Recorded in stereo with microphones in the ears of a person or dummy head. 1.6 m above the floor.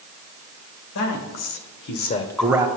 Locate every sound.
0.9 s a man speaking: 80° left, 2.5 m; by 2.7 s 15° right (ahead or behind), 0.9 m